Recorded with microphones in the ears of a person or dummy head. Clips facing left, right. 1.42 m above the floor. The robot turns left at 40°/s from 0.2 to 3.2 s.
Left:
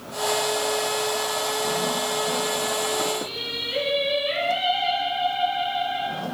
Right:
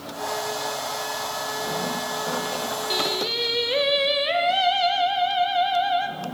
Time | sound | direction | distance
2.9 | singing | 80° right | 1.0 m